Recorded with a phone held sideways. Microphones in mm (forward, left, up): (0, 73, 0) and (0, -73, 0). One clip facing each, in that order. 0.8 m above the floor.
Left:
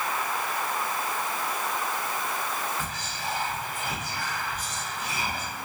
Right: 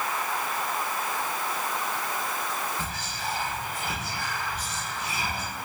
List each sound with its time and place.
2.8 s whispering: 30° right (ahead or behind), 1.8 m